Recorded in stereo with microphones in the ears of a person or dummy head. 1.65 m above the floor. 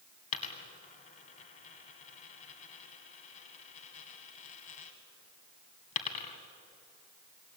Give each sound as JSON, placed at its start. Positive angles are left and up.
{"t": 0.3, "sound": "a dropped coin", "side_deg": 35, "distance_m": 2.0}